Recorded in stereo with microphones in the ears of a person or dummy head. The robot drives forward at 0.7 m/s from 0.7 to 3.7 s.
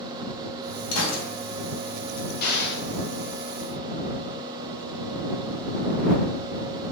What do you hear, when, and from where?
0.9 s a gunshot: 80° left, 0.8 m
2.4 s an explosion: 50° left (ahead or behind), 0.7 m; by 2.8 s 70° left (ahead or behind), 0.6 m